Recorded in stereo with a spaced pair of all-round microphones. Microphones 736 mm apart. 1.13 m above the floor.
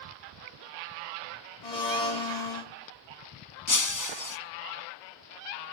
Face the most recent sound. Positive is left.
turn(degrees=30)  # may be behind; listen again after turning